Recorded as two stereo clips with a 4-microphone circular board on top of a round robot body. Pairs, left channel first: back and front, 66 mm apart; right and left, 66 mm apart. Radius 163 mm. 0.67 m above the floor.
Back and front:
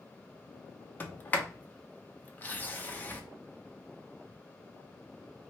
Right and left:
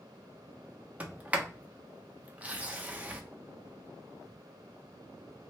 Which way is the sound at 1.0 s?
140° left.